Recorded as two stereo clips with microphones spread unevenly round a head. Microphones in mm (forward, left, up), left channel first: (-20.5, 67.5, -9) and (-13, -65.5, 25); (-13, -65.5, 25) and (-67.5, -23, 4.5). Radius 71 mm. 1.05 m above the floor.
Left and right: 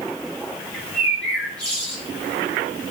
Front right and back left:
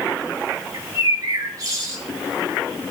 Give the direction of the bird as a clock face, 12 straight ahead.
6 o'clock.